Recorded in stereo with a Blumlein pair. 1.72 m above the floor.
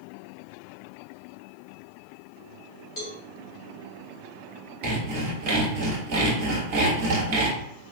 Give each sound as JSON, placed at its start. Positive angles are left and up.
{"t": 3.0, "sound": "a cowbell", "azimuth_deg": 40, "distance_m": 2.0}
{"t": 4.8, "sound": "sawing", "azimuth_deg": -45, "distance_m": 1.6}